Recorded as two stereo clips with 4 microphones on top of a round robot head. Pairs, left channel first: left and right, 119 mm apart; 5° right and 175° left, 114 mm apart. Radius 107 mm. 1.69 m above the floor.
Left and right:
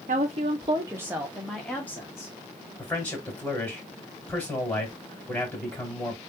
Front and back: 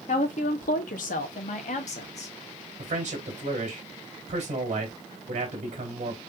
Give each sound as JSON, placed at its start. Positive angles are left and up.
{"t": 0.1, "sound": "a woman speaking", "azimuth_deg": -50, "distance_m": 0.7}
{"t": 2.8, "sound": "a man speaking", "azimuth_deg": 165, "distance_m": 1.8}